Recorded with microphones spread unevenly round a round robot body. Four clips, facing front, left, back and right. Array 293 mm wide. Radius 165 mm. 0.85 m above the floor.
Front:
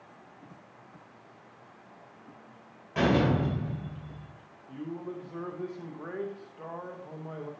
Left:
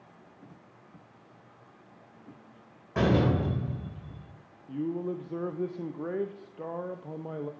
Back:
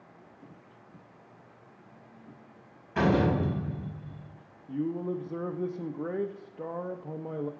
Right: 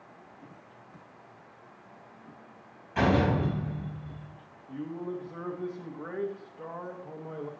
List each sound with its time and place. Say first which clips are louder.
3.0 s a door slam: even, even; 105° left, 3 m
4.7 s a man speaking: left 4 dB, back 7 dB; 145° left, 0.6 m